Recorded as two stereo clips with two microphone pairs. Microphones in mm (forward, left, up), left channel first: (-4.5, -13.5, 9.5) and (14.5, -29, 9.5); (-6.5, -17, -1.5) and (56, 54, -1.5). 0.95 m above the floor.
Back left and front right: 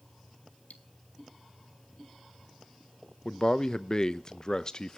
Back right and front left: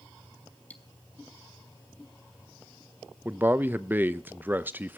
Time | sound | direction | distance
0.7 | cutlery clinking | 155° left | 1.5 m
3.2 | a man speaking | 100° left | 0.6 m